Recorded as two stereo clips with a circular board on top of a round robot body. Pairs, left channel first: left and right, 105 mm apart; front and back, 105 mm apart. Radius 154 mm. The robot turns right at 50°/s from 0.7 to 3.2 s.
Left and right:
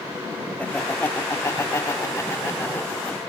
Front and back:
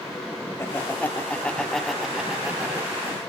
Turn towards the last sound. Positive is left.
turn(degrees=155)